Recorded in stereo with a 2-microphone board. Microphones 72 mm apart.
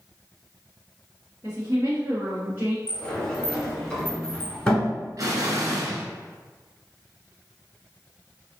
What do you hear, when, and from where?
1.4 s a woman speaking: 40° right (ahead or behind), 1.5 m; by 2.8 s 20° right (ahead or behind), 1.8 m
2.9 s a sliding door: 15° left (ahead or behind), 1.5 m
5.2 s an explosion: 50° right (ahead or behind), 1.0 m